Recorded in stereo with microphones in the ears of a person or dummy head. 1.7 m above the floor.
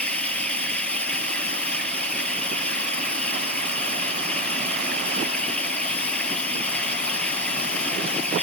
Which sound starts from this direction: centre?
Running water, at 0.0 s.